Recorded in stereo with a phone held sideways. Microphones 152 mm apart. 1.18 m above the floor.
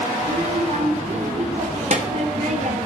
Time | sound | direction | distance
0.2 | a child speaking | 45° right (ahead or behind) | 0.9 m